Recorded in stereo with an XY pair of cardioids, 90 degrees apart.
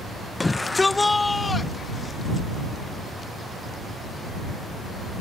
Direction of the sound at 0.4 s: 25° left.